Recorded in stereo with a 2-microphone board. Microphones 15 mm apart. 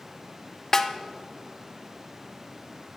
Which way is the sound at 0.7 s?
30° left (ahead or behind).